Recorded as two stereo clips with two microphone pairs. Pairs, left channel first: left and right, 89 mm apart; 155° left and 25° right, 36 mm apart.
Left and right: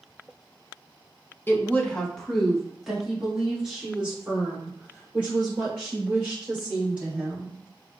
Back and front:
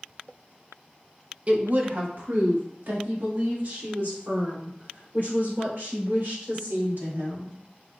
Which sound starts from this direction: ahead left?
A woman speaking, at 1.5 s.